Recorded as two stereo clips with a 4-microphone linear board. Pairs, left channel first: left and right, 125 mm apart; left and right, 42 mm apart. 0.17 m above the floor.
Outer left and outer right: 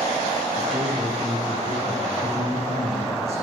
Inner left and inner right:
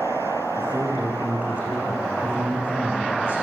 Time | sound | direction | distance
0.6 | a man speaking | 40° right (ahead or behind) | 9 m